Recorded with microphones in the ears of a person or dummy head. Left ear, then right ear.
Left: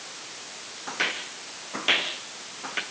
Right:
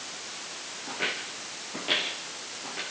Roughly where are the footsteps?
Left.